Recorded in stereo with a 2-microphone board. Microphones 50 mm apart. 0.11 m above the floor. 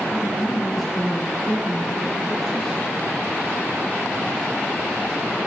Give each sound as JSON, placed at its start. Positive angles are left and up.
{"t": 0.1, "sound": "a man speaking", "side_deg": 0, "distance_m": 2.0}